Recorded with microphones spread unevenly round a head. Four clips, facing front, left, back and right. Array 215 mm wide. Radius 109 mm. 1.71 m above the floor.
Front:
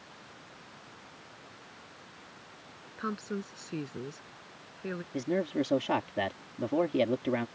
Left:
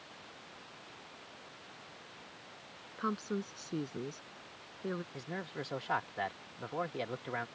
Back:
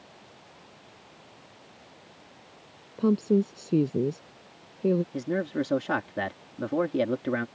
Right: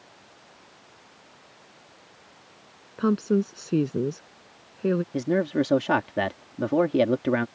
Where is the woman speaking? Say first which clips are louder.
Right 14 dB, back 13 dB; 135° right.